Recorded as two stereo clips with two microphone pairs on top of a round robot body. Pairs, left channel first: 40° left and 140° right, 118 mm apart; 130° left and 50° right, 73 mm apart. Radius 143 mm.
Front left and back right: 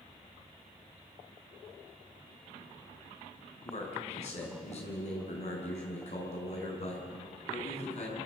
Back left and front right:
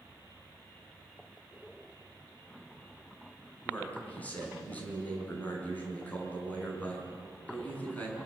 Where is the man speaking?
60° left, 6.5 m.